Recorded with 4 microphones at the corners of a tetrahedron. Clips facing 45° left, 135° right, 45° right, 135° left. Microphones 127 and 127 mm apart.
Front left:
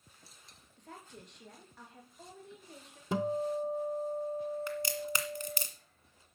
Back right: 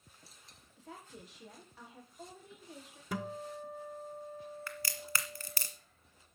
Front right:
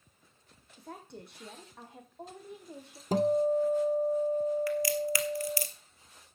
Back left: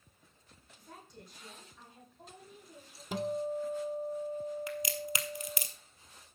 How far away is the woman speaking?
About 3.5 m.